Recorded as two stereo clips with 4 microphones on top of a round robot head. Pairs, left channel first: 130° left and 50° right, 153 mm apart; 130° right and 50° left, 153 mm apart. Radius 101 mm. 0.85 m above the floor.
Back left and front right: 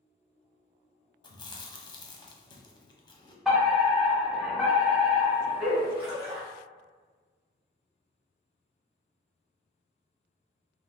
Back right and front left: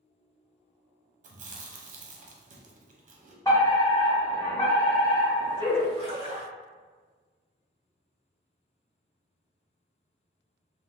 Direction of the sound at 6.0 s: Straight ahead.